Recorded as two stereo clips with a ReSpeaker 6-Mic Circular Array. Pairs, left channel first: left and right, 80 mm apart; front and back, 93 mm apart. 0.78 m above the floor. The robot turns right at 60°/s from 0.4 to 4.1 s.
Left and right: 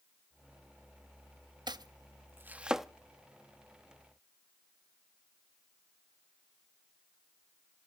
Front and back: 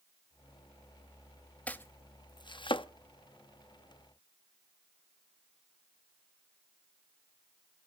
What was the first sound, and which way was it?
Chopping, 75° right.